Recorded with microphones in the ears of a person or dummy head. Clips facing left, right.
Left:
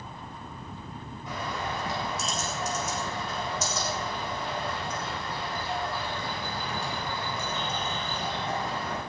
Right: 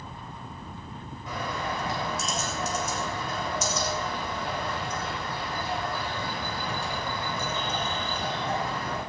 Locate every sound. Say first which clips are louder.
1.3 s a bird: right 2 dB; 80° right, 10 m